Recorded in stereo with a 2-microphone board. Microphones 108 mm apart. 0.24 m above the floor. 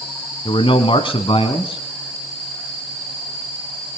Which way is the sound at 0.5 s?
55° left (ahead or behind).